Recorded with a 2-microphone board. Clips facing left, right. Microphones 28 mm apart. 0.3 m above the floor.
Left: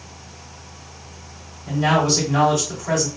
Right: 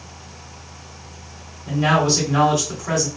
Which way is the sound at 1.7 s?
20° right (ahead or behind).